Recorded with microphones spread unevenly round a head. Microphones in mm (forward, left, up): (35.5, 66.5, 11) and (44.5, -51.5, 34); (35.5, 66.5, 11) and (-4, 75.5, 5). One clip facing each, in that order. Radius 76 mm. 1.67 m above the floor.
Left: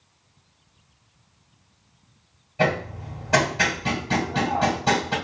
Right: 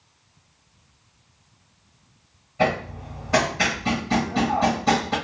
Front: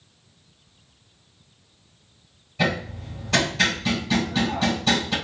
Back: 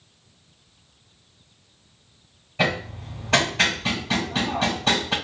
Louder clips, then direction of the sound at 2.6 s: Right 1 dB, back 1 dB; 125° left.